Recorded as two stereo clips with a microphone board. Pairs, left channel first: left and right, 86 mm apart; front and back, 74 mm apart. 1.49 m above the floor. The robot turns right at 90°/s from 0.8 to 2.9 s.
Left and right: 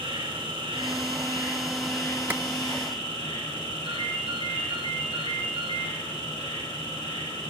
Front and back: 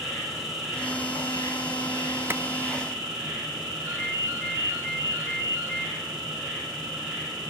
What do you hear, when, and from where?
0.0 s an insect: 85° right, 5.5 m; by 7.5 s 105° left, 5.5 m
2.3 s a clap: 145° right, 0.7 m; by 2.4 s 135° right, 0.7 m
3.9 s a ringtone: 130° left, 5 m